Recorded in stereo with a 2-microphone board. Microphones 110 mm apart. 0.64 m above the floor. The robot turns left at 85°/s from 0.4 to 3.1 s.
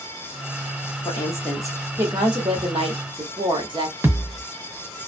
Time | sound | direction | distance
1.1 | a woman speaking | 55° left | 1.1 m
4.0 | a thud | 20° right (ahead or behind) | 0.6 m